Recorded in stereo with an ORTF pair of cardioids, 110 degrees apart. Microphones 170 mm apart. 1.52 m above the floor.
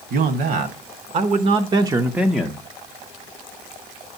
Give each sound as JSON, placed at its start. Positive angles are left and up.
{"t": 0.1, "sound": "a man speaking", "azimuth_deg": -65, "distance_m": 1.3}